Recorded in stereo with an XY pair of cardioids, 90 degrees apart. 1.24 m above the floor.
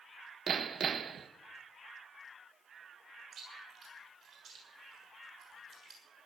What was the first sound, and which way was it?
Hammering, 50° right.